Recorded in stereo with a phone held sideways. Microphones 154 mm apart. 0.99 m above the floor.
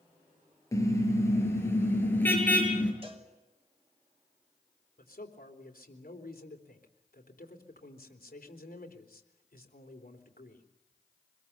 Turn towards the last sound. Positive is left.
turn(degrees=70)  # may be behind; listen again after turning